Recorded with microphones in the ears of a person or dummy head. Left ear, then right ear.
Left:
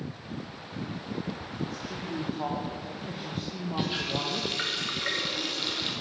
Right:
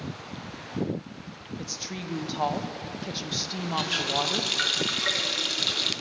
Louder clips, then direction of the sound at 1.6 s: Right 4 dB; 70° right (ahead or behind).